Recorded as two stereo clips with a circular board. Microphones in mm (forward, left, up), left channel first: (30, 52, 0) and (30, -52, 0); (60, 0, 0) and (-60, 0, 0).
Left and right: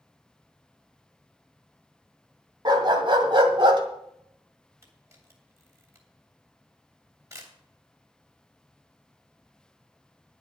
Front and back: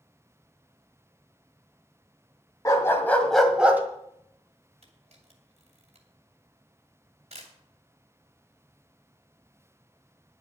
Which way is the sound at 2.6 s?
60° right.